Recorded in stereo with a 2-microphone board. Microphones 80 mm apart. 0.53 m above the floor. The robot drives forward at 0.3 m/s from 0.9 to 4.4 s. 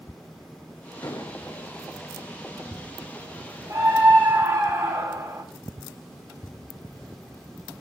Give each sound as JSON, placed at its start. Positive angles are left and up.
{"t": 1.0, "sound": "an explosion", "side_deg": 50, "distance_m": 1.0}
{"t": 3.7, "sound": "a scream", "side_deg": -40, "distance_m": 1.8}